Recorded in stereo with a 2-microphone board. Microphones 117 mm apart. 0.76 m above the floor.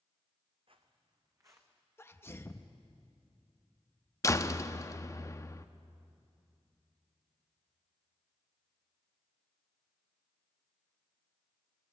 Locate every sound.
0.7 s footsteps: 55° right (ahead or behind), 1.8 m; by 1.8 s 20° right (ahead or behind), 2.5 m
2.0 s a sneeze: 20° left (ahead or behind), 0.8 m
4.2 s a door slam: 30° left (ahead or behind), 0.6 m